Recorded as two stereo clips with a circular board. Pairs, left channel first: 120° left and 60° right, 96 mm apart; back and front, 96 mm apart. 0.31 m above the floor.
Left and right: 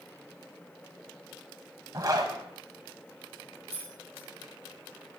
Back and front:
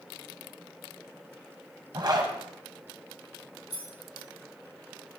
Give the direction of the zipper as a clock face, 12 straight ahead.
1 o'clock.